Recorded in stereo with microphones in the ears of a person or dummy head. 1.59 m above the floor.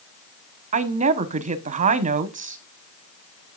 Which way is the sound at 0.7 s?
45° right (ahead or behind).